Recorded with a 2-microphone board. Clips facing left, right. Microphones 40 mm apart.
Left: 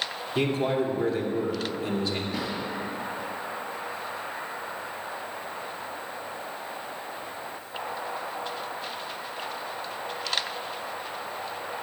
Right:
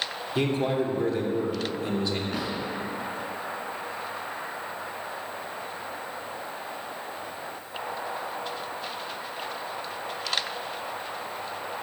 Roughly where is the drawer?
Right.